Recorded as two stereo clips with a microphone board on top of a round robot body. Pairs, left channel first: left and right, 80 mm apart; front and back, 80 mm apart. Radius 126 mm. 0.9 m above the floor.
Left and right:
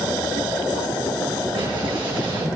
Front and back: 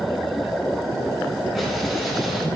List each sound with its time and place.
1.6 s an explosion: 90° right, 5.5 m